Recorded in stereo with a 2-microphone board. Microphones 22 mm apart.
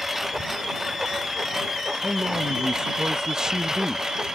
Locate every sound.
0.0 s a lawn mower: 10° right (ahead or behind); by 4.4 s 30° right (ahead or behind)
2.0 s a man speaking: 30° right (ahead or behind)